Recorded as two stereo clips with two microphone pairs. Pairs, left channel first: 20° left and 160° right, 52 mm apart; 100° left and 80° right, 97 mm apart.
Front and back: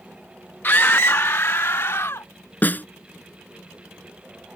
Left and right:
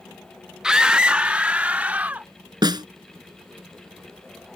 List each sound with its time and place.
0.6 s a scream: straight ahead; by 2.3 s 5° right
2.6 s a snare drum: 35° right